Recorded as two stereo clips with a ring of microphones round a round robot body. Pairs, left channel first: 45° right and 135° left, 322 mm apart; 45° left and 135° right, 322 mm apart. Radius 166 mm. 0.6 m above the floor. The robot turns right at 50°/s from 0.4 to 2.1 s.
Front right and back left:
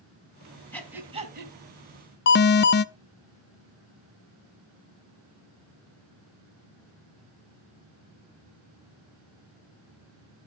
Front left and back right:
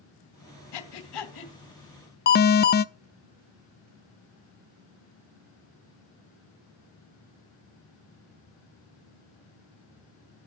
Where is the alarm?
5° right, 0.6 m.